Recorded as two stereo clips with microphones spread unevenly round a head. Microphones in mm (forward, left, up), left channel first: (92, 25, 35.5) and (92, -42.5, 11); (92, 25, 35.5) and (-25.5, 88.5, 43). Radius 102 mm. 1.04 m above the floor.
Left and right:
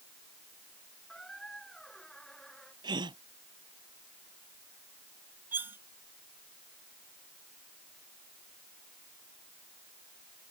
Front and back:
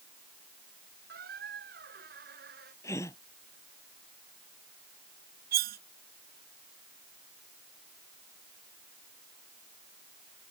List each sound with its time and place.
1.1 s a squeak: 175° left
2.8 s a gasp: 105° right
5.5 s cutlery clinking: 175° right